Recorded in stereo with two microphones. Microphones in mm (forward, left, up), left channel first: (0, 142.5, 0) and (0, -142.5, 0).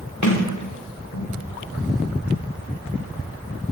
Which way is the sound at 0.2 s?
75° left (ahead or behind).